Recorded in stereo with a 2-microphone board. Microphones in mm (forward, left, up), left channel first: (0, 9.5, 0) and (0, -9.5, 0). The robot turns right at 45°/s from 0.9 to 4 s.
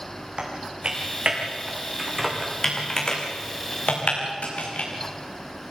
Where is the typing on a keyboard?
65° right (ahead or behind), 5 m; by 4.9 s 75° left (ahead or behind), 5 m.